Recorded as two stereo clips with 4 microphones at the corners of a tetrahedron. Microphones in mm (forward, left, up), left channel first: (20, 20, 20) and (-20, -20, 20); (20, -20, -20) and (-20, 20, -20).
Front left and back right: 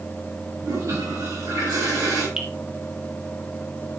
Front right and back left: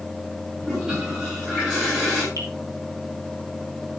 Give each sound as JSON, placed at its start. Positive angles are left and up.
{"t": 0.6, "sound": "a toilet flushing", "azimuth_deg": -150, "distance_m": 8.0}
{"t": 2.4, "sound": "dripping", "azimuth_deg": 145, "distance_m": 3.0}